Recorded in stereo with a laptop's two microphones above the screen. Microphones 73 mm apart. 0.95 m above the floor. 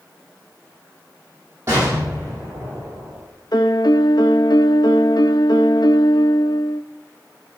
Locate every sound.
1.7 s an explosion: 35° right (ahead or behind), 6 m
3.5 s a piano: 70° left (ahead or behind), 0.6 m